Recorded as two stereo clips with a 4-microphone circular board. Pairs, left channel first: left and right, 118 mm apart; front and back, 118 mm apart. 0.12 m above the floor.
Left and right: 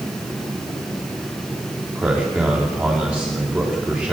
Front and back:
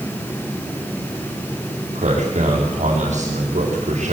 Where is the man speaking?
165° right, 8.5 m.